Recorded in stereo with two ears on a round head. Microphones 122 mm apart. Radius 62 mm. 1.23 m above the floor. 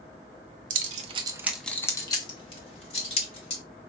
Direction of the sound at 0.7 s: 65° right (ahead or behind).